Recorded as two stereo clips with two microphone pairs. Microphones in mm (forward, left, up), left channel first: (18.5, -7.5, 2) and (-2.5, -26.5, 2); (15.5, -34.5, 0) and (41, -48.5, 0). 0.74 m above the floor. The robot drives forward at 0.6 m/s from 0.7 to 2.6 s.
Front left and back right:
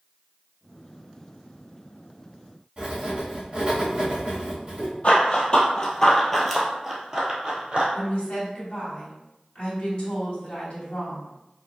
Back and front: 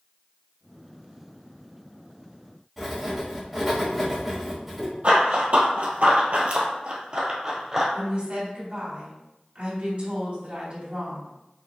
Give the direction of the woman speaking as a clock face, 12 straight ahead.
12 o'clock.